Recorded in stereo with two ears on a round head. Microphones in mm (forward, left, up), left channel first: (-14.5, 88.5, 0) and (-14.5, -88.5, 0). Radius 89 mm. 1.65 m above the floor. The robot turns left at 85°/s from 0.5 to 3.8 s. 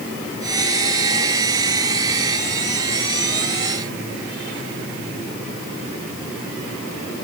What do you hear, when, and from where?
Only background noise.